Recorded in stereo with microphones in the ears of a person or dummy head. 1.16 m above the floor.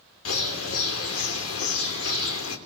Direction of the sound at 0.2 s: 90° left.